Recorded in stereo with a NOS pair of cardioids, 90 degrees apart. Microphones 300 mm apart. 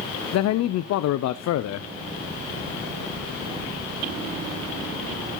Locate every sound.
0.3 s a man speaking: 70° left, 0.6 m